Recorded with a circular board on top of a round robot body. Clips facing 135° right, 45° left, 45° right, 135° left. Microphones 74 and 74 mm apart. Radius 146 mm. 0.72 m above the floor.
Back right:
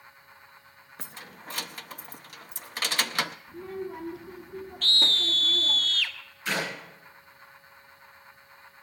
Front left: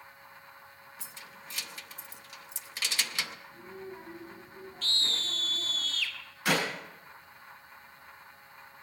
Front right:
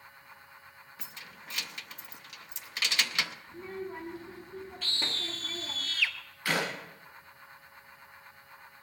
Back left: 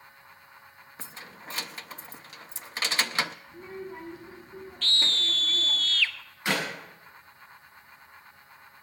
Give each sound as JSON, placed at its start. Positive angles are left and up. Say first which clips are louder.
{"t": 1.0, "sound": "keys jangling", "louder": "back right 6 dB, back left 5 dB", "azimuth_deg": -170, "distance_m": 0.7}
{"t": 3.5, "sound": "a child speaking", "louder": "back right 8 dB, even", "azimuth_deg": -120, "distance_m": 2.0}
{"t": 4.8, "sound": "a scream", "louder": "back right 7 dB, back left 8 dB", "azimuth_deg": -120, "distance_m": 1.5}
{"t": 6.5, "sound": "a clap", "louder": "front left 2 dB, back left 2 dB", "azimuth_deg": 65, "distance_m": 7.0}